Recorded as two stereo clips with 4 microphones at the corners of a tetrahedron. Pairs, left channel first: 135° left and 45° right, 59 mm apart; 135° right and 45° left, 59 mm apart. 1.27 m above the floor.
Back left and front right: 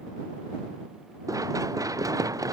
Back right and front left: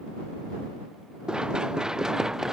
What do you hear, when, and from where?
1.3 s running footsteps: 30° right; by 2.5 s 35° right